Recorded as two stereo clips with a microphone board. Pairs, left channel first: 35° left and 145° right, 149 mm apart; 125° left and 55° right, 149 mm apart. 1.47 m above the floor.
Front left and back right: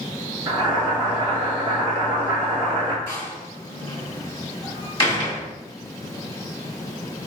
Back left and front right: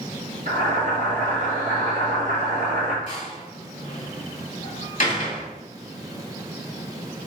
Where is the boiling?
85° right, 2.5 m.